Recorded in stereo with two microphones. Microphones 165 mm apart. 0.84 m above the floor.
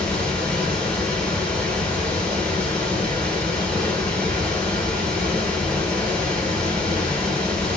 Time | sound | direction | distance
0.0 | running water | 5° left (ahead or behind) | 2 m